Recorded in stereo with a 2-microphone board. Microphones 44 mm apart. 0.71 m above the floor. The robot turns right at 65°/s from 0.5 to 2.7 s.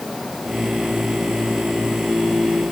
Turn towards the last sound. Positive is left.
No sound to turn to.